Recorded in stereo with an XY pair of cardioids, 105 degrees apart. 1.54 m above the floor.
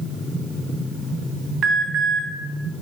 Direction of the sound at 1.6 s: 60° right.